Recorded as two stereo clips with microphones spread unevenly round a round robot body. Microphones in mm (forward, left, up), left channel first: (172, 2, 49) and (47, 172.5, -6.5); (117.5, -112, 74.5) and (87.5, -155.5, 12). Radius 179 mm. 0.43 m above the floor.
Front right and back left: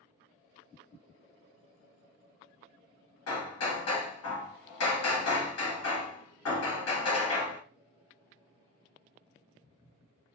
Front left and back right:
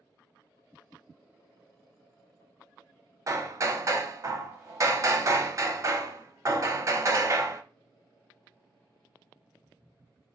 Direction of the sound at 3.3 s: 75° right.